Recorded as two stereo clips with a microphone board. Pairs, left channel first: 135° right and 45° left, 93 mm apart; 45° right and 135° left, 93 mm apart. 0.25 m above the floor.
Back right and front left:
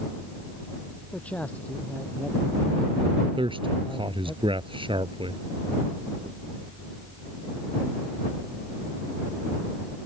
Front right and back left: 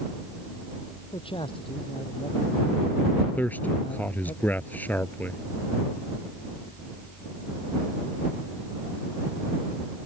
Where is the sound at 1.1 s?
60° right.